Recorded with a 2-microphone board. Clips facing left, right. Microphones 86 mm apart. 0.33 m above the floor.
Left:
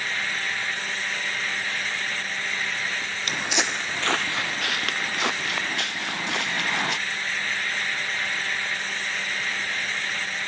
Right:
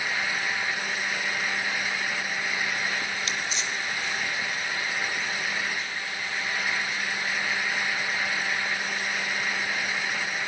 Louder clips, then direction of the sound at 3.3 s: Left 4 dB; 55° left (ahead or behind).